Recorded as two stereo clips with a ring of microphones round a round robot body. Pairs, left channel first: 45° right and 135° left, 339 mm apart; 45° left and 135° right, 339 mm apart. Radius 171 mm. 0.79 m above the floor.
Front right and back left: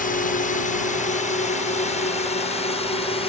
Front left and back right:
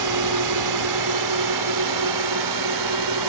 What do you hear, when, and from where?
0.0 s a drone: 110° right; by 3.3 s 120° right